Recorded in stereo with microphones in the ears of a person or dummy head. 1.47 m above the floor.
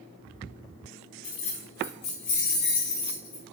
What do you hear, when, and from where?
1.2 s keys jangling: 30° left (ahead or behind), 0.7 m; by 3.4 s 15° left (ahead or behind), 1.0 m